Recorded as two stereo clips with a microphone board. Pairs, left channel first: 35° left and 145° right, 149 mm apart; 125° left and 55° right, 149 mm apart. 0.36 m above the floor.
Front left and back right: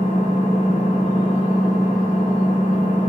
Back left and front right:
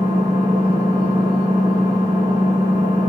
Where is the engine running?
5° left, 1.0 m.